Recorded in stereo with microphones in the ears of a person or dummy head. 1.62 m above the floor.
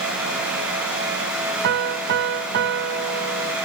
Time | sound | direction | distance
1.6 | a piano | 60° right (ahead or behind) | ?